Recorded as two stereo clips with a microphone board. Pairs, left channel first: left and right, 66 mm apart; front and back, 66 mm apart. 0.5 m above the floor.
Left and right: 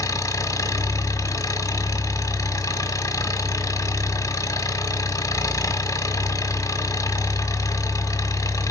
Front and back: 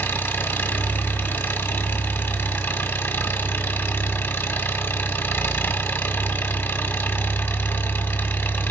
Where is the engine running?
55° left, 1.2 m.